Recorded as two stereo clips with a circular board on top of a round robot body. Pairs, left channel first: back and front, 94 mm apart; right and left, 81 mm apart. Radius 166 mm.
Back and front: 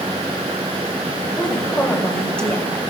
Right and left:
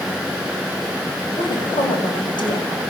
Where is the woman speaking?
100° right, 3 m.